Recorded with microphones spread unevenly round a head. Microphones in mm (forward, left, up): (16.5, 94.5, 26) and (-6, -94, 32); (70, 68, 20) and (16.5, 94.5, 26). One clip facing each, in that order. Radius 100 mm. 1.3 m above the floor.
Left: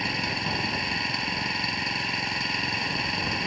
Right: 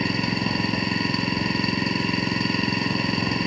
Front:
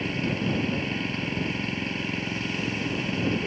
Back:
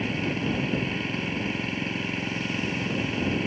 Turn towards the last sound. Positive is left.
turn(degrees=-120)